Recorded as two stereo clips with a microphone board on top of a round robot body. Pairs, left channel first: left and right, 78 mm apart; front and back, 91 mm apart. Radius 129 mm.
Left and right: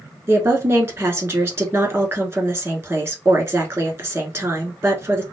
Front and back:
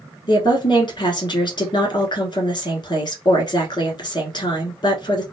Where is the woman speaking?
35° right, 1.6 m.